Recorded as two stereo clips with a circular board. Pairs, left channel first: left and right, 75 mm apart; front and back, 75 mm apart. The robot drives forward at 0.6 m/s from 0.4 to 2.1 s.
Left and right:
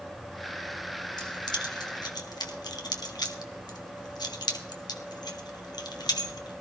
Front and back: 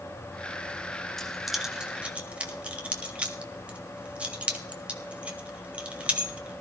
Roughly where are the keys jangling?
Left.